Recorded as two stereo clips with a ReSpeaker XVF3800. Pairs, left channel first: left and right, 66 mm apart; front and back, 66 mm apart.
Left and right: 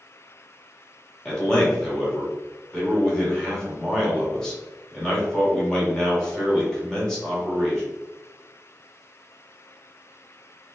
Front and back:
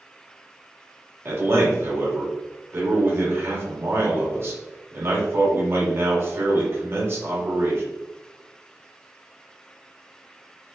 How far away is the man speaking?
About 1.7 m.